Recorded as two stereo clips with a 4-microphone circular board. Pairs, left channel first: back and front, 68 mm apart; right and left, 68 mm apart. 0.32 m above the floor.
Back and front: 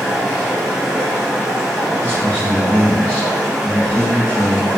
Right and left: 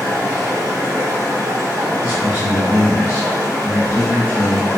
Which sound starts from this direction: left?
Running water, at 0.0 s.